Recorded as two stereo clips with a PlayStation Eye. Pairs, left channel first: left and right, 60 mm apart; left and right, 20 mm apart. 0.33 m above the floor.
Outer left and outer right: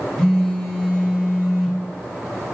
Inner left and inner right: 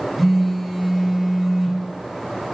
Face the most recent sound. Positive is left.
turn(degrees=10)  # may be behind; listen again after turning